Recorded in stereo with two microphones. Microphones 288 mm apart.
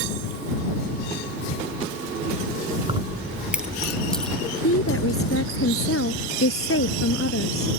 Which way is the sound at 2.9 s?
20° right (ahead or behind).